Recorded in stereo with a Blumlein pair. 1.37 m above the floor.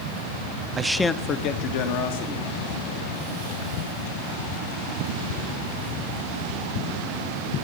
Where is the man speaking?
15° right, 0.6 m; by 3.7 s 65° left, 3.5 m.